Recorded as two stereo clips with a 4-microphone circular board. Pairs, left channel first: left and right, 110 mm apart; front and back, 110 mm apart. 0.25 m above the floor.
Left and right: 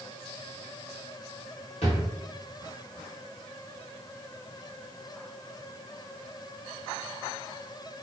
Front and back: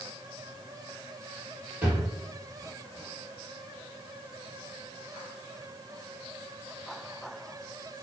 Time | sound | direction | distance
1.8 | a drawer | 105° left | 1.8 m